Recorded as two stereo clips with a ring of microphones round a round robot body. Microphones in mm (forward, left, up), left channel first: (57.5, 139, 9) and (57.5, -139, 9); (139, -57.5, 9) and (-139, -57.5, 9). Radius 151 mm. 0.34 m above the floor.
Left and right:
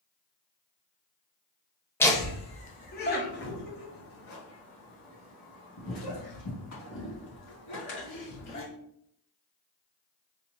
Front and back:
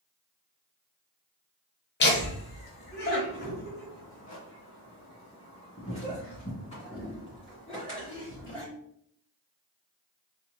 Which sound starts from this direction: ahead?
Laughter, at 2.0 s.